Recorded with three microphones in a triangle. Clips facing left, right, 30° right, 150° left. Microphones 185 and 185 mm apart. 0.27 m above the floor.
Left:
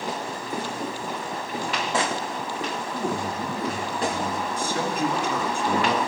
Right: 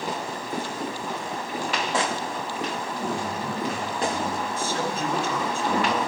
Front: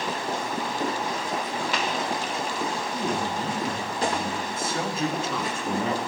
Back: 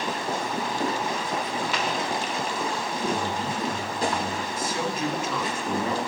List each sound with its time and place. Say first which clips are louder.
2.9 s a man speaking: left 1 dB, even; 15° left, 1.8 m
4.5 s a man speaking: left 1 dB, even; 20° left, 1.7 m